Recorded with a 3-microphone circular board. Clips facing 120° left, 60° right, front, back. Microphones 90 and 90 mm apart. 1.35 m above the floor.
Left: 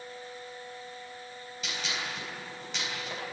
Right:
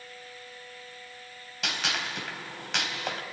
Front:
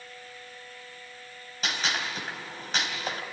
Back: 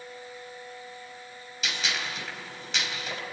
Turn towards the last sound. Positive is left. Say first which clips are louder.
# right 4 dB, front 2 dB
turn(degrees=-50)